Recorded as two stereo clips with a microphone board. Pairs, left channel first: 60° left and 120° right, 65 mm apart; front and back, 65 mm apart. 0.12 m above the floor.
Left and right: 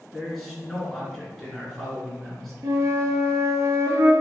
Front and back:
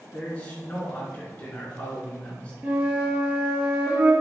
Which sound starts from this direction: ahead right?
A man speaking, at 0.1 s.